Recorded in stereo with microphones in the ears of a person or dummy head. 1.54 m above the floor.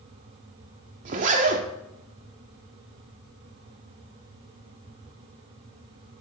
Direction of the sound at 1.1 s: 40° right (ahead or behind).